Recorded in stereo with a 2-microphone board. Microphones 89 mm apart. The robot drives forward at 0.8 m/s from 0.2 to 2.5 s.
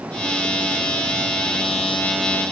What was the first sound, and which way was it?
Only background noise.